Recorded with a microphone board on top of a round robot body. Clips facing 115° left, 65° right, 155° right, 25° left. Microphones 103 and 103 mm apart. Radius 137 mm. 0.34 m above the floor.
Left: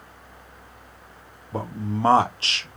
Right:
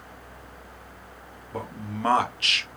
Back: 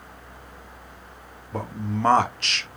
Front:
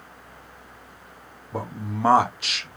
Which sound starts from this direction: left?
A man speaking, at 1.5 s.